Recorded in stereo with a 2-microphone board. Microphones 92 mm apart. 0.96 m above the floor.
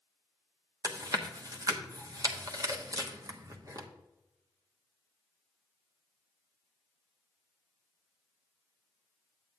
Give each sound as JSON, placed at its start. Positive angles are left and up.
{"t": 0.8, "sound": "chewing", "side_deg": -45, "distance_m": 1.1}